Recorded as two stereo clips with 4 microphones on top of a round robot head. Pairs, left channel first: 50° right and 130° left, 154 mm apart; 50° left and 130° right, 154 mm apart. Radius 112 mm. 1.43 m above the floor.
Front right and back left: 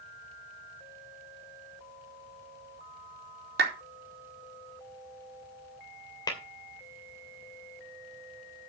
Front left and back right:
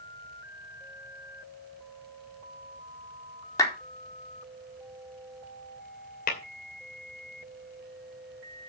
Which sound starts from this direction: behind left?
A clap, at 3.6 s.